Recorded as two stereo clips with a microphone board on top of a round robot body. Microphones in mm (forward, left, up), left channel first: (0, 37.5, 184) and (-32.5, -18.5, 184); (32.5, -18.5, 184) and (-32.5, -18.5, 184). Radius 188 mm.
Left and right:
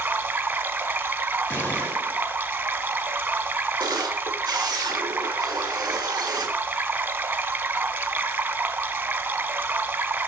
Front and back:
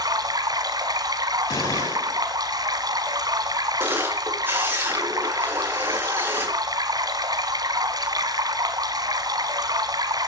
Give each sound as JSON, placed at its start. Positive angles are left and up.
{"t": 0.0, "sound": "running water", "azimuth_deg": 180, "distance_m": 2.5}
{"t": 1.5, "sound": "a gunshot", "azimuth_deg": 0, "distance_m": 8.5}
{"t": 3.8, "sound": "a camera shutter", "azimuth_deg": -120, "distance_m": 4.5}